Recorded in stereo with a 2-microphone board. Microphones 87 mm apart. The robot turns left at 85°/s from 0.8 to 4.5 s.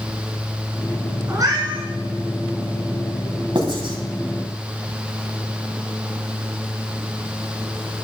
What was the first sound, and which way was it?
A cat meowing, 30° right.